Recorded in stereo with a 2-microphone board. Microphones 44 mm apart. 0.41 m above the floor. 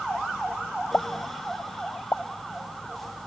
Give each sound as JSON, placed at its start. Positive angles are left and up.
{"t": 0.9, "sound": "a pop", "side_deg": 45}